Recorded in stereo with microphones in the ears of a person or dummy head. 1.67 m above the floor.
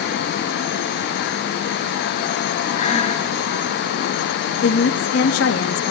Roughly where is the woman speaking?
Left.